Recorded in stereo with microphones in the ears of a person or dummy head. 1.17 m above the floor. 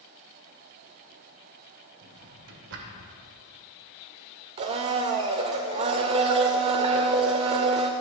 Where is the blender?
30° right (ahead or behind), 0.9 m.